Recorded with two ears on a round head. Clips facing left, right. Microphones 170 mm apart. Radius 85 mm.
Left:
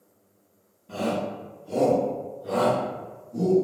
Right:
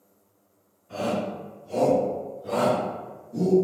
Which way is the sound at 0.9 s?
70° left (ahead or behind).